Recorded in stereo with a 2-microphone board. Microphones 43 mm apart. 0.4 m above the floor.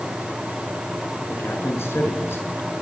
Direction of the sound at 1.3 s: 70° left (ahead or behind).